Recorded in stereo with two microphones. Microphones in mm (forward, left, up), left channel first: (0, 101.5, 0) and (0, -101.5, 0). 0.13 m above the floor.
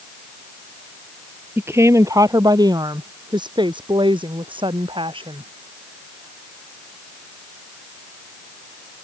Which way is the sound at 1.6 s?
10° right (ahead or behind).